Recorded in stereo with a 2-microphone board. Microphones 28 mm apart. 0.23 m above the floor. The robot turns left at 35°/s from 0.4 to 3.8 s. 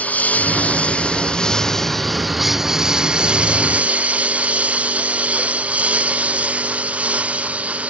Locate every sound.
0.0 s a lawn mower: 65° left; by 7.9 s 55° right